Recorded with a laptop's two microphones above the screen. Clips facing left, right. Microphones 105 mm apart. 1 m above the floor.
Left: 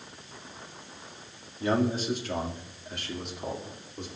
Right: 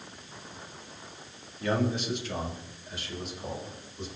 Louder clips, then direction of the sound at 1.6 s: Left 2 dB; 30° left (ahead or behind).